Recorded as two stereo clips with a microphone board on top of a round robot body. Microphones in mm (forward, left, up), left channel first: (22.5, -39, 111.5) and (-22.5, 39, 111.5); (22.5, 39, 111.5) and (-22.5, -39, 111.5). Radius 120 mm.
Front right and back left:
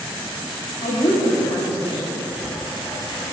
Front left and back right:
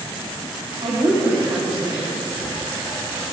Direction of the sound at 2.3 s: 20° left.